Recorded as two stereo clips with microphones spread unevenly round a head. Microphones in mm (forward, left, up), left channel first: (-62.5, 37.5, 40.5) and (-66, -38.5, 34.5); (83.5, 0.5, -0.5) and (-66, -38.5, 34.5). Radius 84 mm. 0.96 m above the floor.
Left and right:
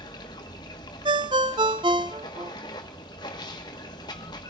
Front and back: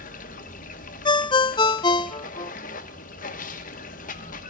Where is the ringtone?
55° right, 0.6 m.